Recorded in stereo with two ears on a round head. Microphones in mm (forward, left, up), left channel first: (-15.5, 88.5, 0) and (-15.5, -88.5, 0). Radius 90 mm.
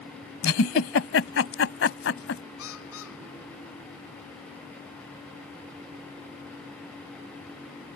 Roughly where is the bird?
Left.